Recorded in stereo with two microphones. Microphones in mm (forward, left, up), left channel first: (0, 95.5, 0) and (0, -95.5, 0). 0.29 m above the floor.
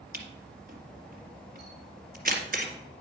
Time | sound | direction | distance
0.1 | a camera shutter | 50° right (ahead or behind) | 1.9 m